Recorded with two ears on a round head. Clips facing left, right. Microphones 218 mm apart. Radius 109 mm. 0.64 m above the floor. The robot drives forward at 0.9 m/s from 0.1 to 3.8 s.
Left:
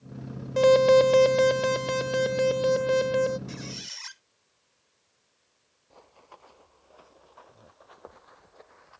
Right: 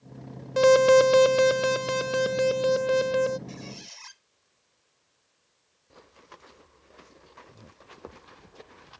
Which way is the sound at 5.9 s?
25° right (ahead or behind).